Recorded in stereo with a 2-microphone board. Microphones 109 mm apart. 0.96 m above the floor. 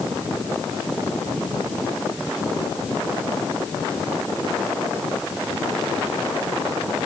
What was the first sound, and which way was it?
Only background noise.